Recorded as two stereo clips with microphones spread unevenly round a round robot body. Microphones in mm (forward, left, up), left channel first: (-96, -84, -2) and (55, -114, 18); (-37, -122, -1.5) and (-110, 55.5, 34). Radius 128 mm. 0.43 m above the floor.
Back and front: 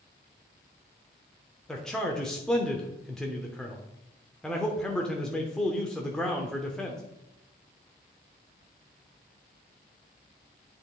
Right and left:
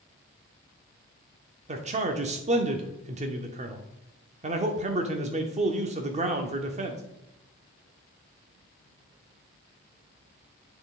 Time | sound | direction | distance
1.7 | a man speaking | 110° left | 0.7 m